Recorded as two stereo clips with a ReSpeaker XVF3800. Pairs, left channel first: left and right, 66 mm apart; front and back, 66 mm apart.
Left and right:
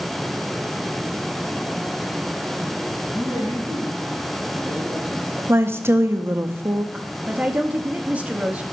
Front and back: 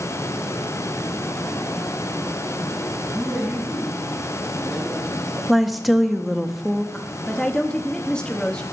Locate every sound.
3.1 s a man speaking: 115° left, 3.5 m
5.5 s a woman speaking: 90° right, 0.5 m
6.9 s a woman speaking: 60° right, 0.7 m